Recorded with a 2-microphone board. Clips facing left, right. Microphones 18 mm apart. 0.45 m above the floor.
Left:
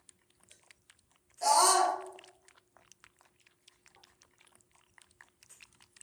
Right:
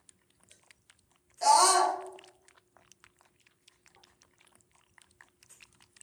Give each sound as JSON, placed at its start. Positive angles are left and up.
{"t": 1.4, "sound": "a scream", "side_deg": -15, "distance_m": 1.1}